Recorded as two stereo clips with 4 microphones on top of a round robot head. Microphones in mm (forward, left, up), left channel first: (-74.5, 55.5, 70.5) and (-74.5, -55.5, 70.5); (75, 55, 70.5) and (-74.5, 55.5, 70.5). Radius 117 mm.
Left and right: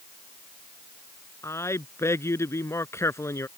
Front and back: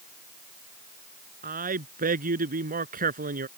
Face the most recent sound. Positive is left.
turn(degrees=155)